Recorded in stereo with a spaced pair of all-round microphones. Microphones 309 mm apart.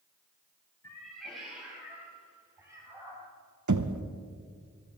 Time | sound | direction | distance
0.8 | a cat meowing | 5° left (ahead or behind) | 4 m
3.7 | knocking | 65° right (ahead or behind) | 0.7 m